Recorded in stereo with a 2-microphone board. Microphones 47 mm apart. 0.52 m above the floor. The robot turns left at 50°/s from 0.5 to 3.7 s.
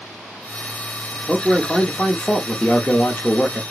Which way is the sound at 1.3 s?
175° left.